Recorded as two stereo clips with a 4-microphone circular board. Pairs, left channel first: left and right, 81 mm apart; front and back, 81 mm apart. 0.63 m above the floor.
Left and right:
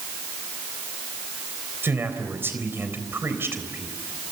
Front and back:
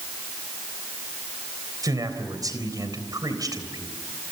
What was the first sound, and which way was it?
A man speaking, 150° right.